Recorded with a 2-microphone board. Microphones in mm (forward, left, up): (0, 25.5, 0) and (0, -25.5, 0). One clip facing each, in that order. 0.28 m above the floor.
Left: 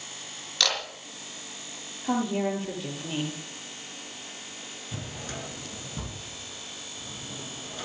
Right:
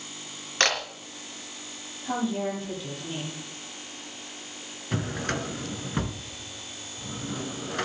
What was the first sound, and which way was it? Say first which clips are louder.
A camera shutter: right 4 dB; 40° right (ahead or behind).